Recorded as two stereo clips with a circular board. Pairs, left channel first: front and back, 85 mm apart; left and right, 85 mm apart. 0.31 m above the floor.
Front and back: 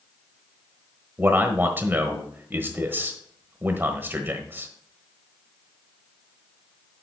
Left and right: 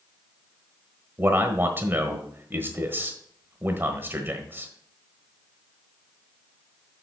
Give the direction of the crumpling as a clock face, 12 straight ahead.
I don't hear crumpling.